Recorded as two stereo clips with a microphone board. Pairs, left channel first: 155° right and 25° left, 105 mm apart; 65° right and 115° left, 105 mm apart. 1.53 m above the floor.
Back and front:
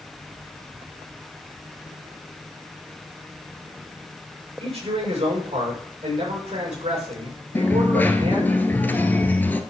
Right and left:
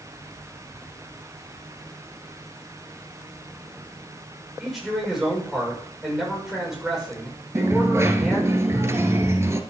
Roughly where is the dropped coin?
Behind left.